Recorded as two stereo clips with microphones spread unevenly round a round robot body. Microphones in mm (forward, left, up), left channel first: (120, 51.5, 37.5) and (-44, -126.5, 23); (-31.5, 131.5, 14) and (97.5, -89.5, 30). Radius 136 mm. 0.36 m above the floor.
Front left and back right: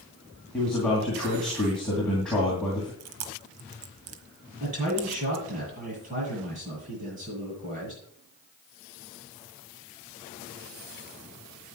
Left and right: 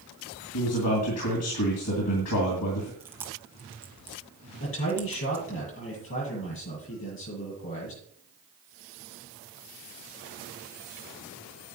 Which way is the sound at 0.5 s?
135° left.